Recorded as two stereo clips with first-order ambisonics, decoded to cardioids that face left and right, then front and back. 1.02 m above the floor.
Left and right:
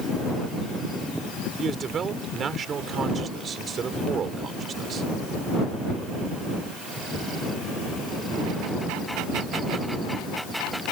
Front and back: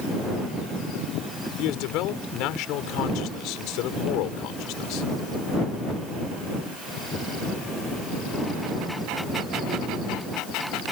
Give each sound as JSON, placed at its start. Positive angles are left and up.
{"t": 1.6, "sound": "a man speaking", "azimuth_deg": -25}